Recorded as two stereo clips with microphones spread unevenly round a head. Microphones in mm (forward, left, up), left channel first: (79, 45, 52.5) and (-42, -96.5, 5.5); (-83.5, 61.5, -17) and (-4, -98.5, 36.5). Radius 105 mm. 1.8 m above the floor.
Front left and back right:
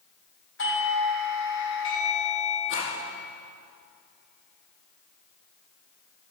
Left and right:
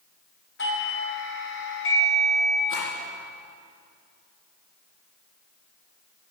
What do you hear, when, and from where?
0.6 s a doorbell: 80° left, 4.5 m
2.7 s a rattle: 85° left, 10 m